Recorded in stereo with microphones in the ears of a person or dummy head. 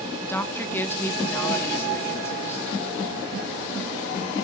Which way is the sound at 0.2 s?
15° left (ahead or behind).